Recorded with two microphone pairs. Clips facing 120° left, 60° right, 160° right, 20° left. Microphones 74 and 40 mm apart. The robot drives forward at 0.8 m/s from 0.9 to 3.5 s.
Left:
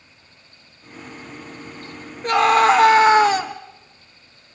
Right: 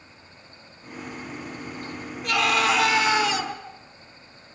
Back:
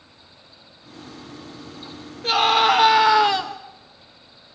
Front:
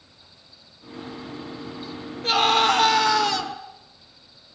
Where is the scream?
115° left, 1.6 m; by 3.5 s 145° left, 2 m.